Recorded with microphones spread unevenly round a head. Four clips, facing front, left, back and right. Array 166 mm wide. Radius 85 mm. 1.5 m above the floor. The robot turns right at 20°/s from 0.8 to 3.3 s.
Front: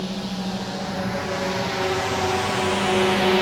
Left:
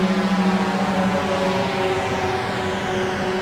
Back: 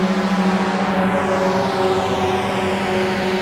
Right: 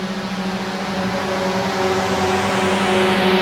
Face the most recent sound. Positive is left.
turn(degrees=-70)